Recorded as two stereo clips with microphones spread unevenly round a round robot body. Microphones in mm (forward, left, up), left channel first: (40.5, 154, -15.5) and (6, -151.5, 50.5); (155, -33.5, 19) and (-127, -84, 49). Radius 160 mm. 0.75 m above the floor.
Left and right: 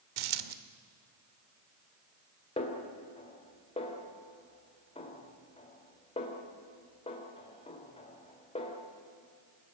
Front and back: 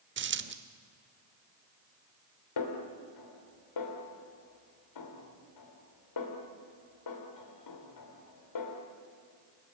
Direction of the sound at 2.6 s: 15° left.